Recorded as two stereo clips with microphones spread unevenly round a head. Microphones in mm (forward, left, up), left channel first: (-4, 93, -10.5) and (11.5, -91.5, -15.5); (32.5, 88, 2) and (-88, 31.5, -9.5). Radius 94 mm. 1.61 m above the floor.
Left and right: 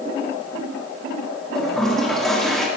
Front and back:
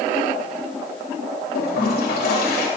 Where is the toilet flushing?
5° left, 4 m.